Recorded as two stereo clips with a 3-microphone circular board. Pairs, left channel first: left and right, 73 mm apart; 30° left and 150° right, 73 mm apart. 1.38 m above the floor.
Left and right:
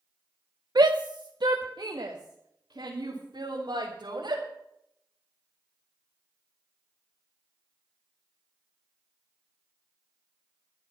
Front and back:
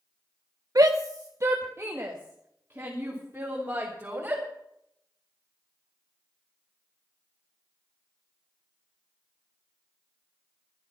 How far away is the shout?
About 0.9 m.